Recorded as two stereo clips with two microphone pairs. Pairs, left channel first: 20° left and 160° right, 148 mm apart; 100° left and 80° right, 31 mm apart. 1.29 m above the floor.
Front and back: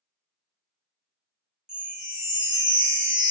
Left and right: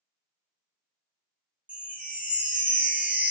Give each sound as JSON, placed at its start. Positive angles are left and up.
{"t": 1.7, "sound": "a chime", "azimuth_deg": -130, "distance_m": 0.9}